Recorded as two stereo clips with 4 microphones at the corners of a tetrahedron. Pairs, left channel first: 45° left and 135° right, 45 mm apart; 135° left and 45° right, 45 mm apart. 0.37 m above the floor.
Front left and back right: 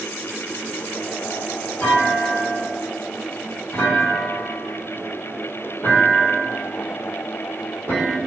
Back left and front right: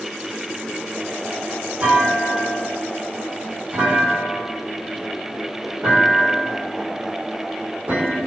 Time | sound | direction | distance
1.8 | a clunk | straight ahead | 1.8 m